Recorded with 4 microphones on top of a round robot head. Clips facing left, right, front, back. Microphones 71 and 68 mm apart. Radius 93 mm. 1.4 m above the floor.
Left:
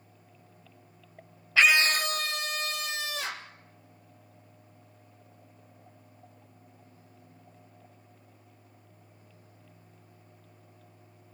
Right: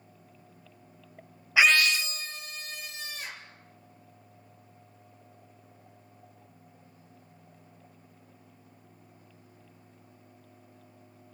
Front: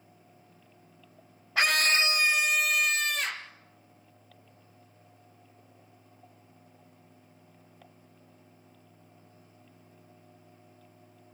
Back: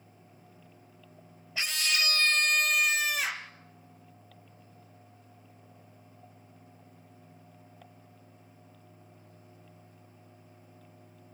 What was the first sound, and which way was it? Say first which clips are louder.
A scream: even, front 7 dB; 15° right.